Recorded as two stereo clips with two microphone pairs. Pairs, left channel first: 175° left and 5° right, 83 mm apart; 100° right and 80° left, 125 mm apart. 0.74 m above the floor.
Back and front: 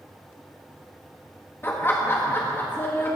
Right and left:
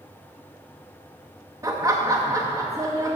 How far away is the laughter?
About 0.7 m.